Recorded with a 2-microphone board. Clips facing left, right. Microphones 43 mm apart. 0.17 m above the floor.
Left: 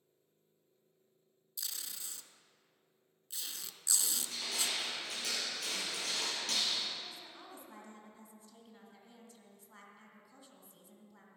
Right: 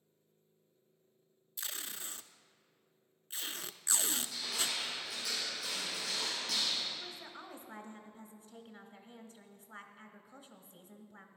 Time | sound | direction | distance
1.6 | tape being pulled | 40° right (ahead or behind) | 0.5 m
4.1 | crushing | 65° left (ahead or behind) | 3.5 m
7.0 | a woman speaking | 25° right (ahead or behind) | 1.1 m